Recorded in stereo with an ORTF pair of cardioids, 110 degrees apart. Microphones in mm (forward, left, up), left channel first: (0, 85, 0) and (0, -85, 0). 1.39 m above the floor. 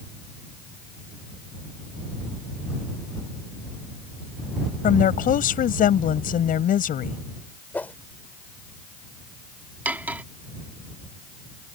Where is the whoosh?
10° left.